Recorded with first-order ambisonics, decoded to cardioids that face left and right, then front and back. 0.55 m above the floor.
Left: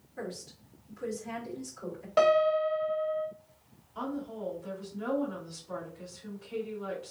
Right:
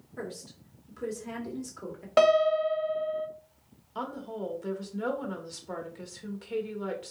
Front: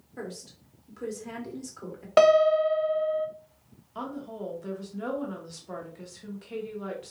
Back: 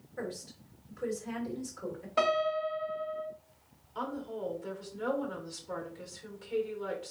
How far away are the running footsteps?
No running footsteps in this recording.